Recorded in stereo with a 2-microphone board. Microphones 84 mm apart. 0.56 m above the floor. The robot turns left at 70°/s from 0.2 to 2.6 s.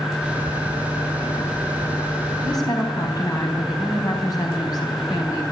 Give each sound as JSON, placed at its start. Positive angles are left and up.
{"t": 2.4, "sound": "a woman speaking", "side_deg": 65, "distance_m": 3.5}